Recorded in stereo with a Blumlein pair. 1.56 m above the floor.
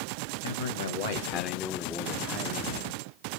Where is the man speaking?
65° left, 1.0 m; by 2.9 s 40° right, 0.8 m.